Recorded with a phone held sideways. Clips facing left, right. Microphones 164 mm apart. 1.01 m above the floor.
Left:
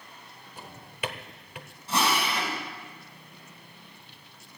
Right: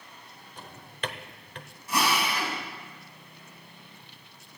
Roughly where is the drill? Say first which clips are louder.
Even; left.